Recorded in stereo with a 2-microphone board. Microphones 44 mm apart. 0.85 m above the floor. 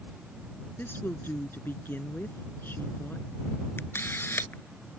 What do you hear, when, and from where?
0.8 s a woman speaking: 45° left (ahead or behind)
3.8 s a camera shutter: 55° left (ahead or behind)